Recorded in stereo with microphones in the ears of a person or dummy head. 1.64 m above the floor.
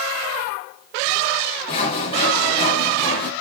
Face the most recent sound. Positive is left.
turn(degrees=30)  # may be behind; listen again after turning